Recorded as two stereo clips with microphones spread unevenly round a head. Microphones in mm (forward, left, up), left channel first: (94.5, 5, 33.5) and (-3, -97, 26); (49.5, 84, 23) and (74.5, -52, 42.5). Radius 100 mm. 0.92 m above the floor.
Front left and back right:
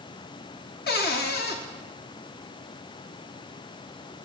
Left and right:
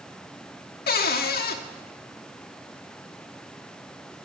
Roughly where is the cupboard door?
Left.